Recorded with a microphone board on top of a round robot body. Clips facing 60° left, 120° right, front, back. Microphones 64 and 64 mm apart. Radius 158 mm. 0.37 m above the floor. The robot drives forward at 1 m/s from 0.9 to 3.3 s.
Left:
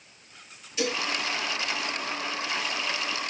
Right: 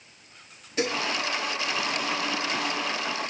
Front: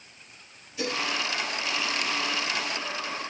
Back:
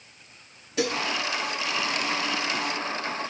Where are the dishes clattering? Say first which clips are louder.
Right 2 dB, back 4 dB; 170° right, 7.5 m.